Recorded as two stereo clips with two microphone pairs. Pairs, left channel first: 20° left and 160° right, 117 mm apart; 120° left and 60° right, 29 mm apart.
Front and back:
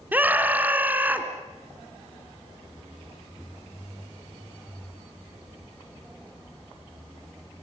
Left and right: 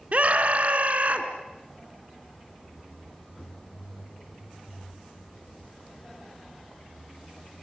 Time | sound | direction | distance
0.1 | a scream | 85° right | 3 m